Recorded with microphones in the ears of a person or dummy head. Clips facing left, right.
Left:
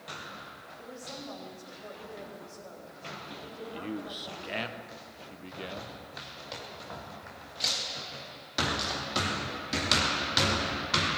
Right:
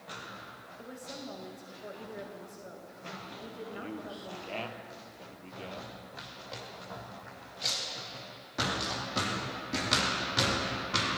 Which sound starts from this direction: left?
A man speaking, at 3.7 s.